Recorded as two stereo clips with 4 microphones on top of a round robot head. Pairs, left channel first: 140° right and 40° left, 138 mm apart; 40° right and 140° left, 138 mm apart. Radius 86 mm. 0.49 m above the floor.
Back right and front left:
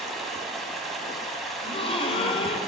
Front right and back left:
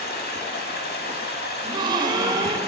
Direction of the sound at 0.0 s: 50° right.